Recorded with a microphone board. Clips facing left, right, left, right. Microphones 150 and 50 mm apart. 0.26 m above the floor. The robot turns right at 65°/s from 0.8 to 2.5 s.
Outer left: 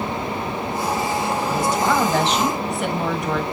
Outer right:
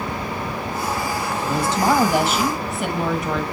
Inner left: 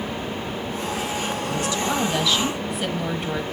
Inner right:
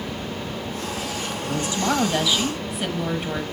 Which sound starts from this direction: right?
A woman speaking, at 1.5 s.